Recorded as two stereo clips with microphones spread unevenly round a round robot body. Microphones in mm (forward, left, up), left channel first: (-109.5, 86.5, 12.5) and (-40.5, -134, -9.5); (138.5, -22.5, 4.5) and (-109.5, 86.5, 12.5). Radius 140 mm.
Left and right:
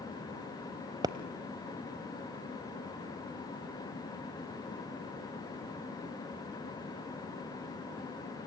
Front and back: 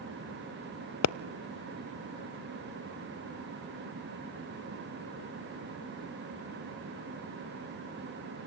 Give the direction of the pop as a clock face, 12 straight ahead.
12 o'clock.